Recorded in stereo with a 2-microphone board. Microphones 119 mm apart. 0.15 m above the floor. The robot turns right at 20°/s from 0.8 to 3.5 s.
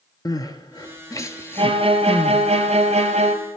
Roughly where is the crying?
Left.